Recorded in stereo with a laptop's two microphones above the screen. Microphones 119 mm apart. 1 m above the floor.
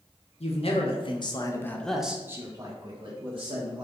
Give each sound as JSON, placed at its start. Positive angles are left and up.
{"t": 0.4, "sound": "a man speaking", "side_deg": 60, "distance_m": 0.9}